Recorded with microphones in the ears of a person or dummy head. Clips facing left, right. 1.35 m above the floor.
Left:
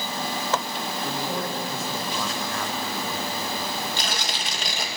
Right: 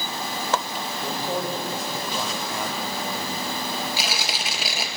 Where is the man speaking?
20° right (ahead or behind), 4.5 m.